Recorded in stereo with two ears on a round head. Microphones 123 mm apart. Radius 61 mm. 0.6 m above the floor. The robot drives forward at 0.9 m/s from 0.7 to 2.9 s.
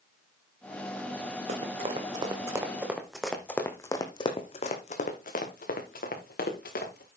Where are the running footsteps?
50° right (ahead or behind), 2.5 m; by 7.1 s 85° left, 4 m.